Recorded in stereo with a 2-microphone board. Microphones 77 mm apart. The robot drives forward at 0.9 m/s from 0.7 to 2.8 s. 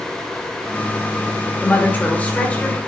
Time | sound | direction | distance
1.6 | a woman speaking | 30° left (ahead or behind) | 1.9 m